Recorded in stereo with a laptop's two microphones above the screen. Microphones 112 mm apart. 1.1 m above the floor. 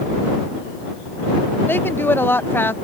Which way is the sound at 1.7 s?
20° left (ahead or behind).